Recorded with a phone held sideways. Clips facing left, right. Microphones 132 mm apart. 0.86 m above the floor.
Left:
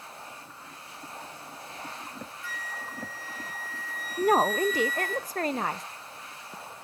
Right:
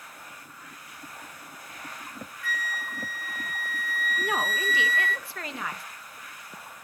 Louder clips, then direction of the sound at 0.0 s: Left 3 dB; 25° left (ahead or behind).